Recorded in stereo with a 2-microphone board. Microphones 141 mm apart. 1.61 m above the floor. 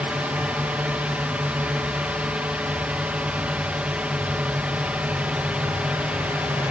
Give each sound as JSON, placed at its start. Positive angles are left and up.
{"t": 0.0, "sound": "a drone", "side_deg": -10}